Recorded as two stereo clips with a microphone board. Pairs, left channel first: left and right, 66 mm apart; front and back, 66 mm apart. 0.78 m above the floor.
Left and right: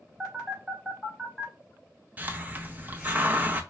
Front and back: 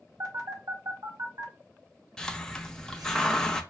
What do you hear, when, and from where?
0.2 s a phone buzzing: 170° right, 1.3 m
2.2 s a hiss: 70° right, 0.6 m